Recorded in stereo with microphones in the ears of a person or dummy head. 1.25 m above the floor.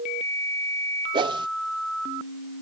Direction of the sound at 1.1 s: 25° right (ahead or behind).